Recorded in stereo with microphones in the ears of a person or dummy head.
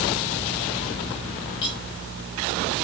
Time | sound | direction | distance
1.6 | cutlery clinking | 30° left (ahead or behind) | 5.5 m